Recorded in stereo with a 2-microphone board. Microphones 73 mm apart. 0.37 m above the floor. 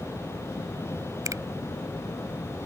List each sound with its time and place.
1.2 s a finger snap: 50° right (ahead or behind)